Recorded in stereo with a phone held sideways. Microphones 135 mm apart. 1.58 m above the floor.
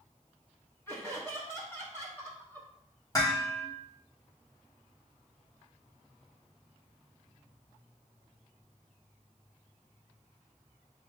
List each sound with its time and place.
0.9 s laughter: 20° left (ahead or behind), 1.4 m
3.1 s dishes clattering: 30° left (ahead or behind), 2.5 m